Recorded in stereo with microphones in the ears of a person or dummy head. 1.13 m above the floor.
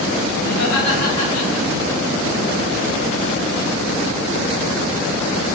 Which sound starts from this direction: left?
Laughter, at 0.5 s.